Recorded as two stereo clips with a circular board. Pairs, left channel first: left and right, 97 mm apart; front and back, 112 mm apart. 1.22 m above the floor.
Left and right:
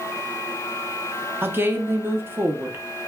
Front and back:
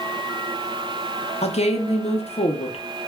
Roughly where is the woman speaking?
Ahead.